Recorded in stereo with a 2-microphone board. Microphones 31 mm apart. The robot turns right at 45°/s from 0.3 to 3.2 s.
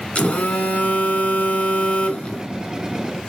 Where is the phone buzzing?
45° left, 1.3 m; by 2.5 s 145° left, 1.3 m.